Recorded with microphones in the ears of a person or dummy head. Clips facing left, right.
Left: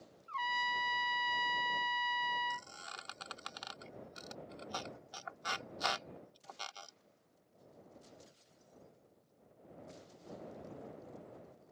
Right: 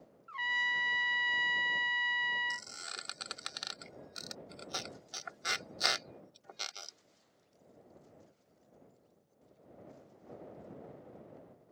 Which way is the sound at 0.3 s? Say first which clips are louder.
Left 4 dB; 20° right (ahead or behind).